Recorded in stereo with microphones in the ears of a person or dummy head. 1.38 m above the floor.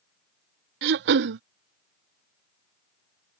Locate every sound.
0.8 s throat clearing: 65° right (ahead or behind)